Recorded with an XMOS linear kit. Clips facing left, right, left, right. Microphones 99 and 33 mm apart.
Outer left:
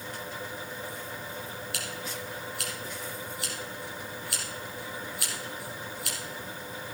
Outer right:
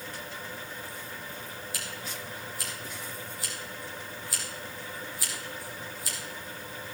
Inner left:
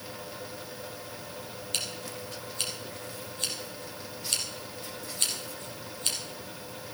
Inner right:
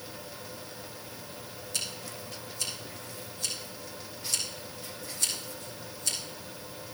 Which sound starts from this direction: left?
Scissors, at 1.7 s.